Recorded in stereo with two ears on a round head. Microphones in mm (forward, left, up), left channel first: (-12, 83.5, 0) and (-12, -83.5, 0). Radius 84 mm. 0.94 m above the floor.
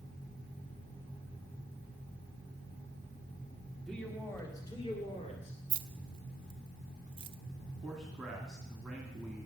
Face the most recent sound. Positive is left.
turn(degrees=0)  # may be behind; listen again after turning